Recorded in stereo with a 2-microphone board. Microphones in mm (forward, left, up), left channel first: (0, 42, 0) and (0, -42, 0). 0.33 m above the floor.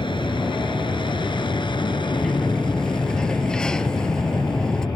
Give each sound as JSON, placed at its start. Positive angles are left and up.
{"t": 0.0, "sound": "an aircraft", "side_deg": 70}
{"t": 2.1, "sound": "a sliding door", "side_deg": 10}